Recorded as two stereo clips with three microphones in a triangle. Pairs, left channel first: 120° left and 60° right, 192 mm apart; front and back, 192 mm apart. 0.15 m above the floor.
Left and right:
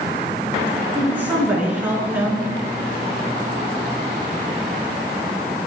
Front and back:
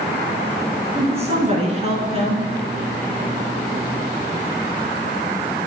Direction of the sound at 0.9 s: 140° right.